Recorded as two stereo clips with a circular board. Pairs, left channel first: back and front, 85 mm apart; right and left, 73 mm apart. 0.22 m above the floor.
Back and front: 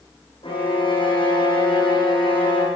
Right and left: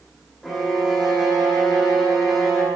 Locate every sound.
0.4 s a violin: 175° right, 6 m